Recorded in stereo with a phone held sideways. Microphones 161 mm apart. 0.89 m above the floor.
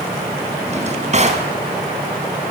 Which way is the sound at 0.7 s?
45° right (ahead or behind).